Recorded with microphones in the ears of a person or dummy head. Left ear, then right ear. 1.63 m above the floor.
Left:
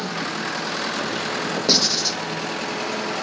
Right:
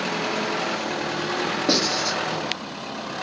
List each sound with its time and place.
1.7 s writing: 25° left (ahead or behind), 1.2 m